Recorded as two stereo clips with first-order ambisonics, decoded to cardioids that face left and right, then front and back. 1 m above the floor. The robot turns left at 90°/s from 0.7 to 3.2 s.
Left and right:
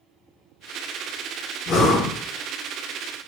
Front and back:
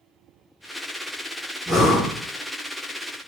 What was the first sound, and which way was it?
Breathing, 95° left.